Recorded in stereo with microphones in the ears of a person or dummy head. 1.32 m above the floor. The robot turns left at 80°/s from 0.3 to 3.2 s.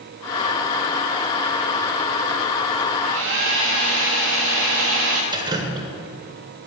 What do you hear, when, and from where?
3.0 s a hair dryer: 65° right (ahead or behind), 1.4 m; by 5.2 s 70° right (ahead or behind), 1.4 m
5.3 s dripping: 25° right (ahead or behind), 1.2 m